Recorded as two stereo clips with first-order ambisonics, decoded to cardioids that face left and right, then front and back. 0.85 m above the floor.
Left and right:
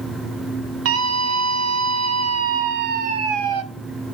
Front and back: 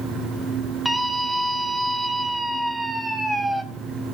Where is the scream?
95° right, 1.6 m.